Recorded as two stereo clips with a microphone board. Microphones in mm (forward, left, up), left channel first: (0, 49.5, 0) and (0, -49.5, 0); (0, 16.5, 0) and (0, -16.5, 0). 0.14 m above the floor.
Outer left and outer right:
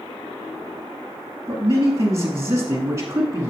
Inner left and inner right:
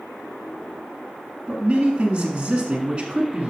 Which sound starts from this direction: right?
A man speaking, at 1.5 s.